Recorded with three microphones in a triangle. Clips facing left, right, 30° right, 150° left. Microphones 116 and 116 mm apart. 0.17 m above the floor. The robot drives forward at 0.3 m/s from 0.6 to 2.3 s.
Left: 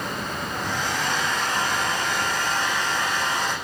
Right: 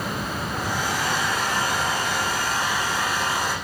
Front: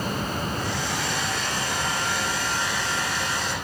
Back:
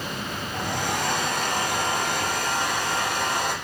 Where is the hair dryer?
170° right, 9 m.